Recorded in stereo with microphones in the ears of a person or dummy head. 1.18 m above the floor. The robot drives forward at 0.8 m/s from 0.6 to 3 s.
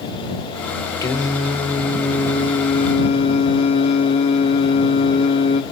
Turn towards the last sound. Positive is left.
turn(degrees=40)  # may be behind; listen again after turning